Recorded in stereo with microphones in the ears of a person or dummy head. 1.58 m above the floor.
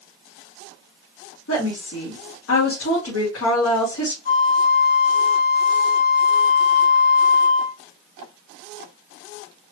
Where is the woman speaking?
85° left, 1.9 m.